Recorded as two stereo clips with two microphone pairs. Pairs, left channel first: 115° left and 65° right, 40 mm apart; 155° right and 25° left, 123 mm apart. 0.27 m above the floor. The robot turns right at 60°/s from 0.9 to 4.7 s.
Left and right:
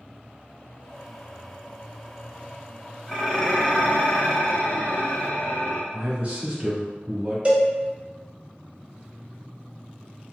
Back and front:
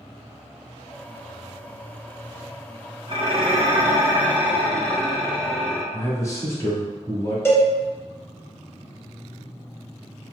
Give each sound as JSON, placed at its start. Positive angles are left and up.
{"t": 3.1, "sound": "dishes clattering", "azimuth_deg": 25, "distance_m": 0.9}
{"t": 5.9, "sound": "a man speaking", "azimuth_deg": -100, "distance_m": 1.3}
{"t": 7.5, "sound": "a cowbell", "azimuth_deg": -100, "distance_m": 0.7}